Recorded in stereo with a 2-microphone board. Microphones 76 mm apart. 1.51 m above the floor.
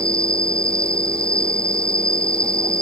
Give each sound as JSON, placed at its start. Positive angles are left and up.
{"t": 0.0, "sound": "an insect", "side_deg": 15}